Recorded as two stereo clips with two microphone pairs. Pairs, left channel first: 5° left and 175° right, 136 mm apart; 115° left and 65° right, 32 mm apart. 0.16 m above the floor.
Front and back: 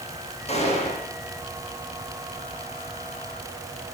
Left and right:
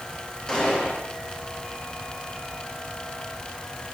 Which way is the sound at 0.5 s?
45° left.